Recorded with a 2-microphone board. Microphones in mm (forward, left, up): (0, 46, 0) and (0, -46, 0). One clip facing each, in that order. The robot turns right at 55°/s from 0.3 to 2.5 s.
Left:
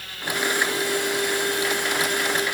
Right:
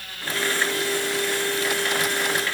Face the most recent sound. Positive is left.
No sound to turn to.